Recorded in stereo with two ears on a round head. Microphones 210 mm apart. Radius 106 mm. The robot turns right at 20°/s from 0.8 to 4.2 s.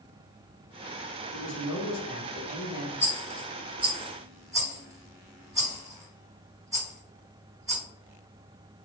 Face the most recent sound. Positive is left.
turn(degrees=-15)  # may be behind; listen again after turning